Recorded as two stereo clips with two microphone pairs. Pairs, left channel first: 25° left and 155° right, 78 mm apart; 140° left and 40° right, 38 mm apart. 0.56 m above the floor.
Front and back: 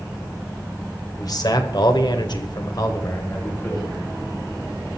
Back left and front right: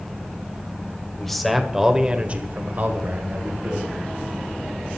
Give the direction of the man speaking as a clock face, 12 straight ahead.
10 o'clock.